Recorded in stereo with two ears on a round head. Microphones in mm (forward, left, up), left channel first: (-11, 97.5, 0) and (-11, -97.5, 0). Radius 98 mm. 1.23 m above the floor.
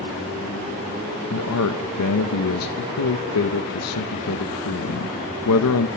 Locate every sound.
1.3 s a man speaking: 75° left (ahead or behind), 0.9 m